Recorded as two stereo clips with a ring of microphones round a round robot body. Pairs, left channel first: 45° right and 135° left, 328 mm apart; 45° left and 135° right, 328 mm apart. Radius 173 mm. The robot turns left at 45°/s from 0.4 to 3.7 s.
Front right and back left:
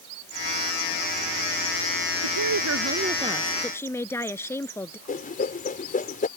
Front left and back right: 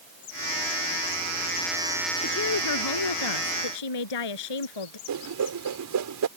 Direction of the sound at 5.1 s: 110° right.